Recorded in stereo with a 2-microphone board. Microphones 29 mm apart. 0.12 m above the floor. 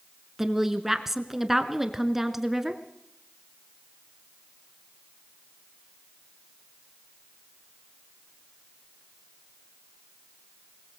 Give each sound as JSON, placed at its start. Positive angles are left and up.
{"t": 0.4, "sound": "a woman speaking", "side_deg": -15, "distance_m": 1.2}